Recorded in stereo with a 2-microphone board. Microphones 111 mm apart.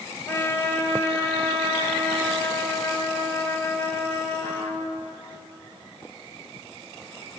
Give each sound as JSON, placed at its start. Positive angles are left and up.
{"t": 0.3, "sound": "a trumpet", "side_deg": 25, "distance_m": 2.5}